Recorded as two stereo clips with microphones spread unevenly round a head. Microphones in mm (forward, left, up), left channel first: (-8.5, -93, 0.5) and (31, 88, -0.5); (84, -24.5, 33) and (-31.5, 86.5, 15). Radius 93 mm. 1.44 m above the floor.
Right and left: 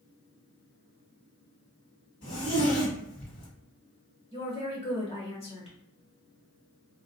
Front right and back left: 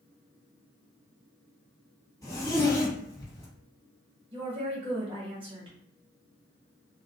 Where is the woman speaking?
165° right, 1.0 m.